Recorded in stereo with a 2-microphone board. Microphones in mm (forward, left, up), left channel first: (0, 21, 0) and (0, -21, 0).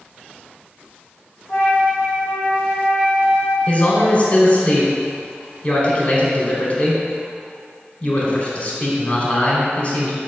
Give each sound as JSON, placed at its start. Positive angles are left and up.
{"t": 1.5, "sound": "a flute", "side_deg": 50, "distance_m": 2.0}
{"t": 3.7, "sound": "a man speaking", "side_deg": 25, "distance_m": 1.2}